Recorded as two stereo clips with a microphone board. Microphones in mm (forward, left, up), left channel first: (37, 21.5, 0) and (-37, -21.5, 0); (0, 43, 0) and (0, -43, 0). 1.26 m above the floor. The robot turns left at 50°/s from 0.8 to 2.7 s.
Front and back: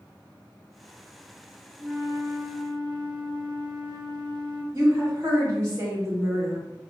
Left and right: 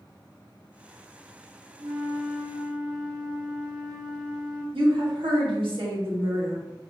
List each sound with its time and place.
1.8 s a flute: 75° right, 0.6 m; by 4.6 s 120° right, 0.6 m
4.7 s a woman speaking: 95° right, 1.3 m